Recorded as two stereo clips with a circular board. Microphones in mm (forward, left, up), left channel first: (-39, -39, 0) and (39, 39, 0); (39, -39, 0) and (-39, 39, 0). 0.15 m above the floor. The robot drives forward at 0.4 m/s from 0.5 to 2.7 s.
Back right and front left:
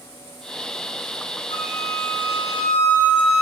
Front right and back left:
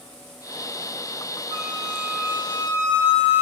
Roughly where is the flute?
Behind right.